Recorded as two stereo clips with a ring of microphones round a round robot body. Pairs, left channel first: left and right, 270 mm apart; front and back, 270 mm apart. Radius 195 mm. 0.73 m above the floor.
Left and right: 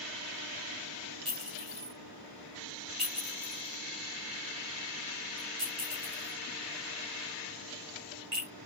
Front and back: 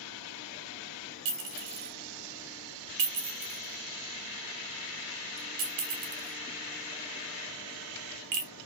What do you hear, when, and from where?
1.2 s a clink: 165° right, 1.1 m